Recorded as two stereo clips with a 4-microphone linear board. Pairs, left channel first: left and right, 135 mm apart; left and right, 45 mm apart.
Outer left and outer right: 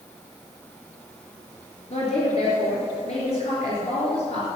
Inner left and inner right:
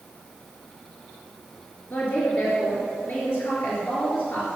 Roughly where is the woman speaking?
Left.